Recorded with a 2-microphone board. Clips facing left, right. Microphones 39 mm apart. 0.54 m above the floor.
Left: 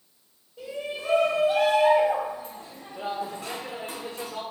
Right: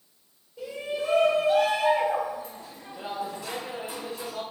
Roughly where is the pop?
No pop in this recording.